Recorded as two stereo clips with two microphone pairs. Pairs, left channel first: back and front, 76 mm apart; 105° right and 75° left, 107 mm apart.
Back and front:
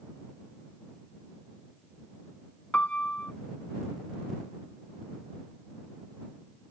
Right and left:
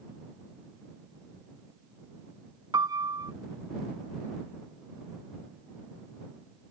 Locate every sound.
2.7 s a piano: 115° left